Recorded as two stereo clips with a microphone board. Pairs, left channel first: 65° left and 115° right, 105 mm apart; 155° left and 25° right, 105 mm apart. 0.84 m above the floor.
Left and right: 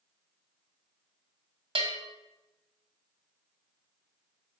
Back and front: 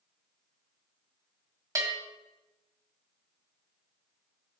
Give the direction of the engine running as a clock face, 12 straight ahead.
No engine running in this recording.